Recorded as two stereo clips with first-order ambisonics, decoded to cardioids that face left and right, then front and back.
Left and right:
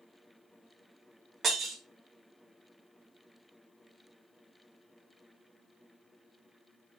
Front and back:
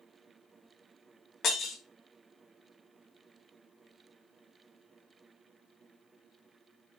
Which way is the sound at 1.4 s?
40° right.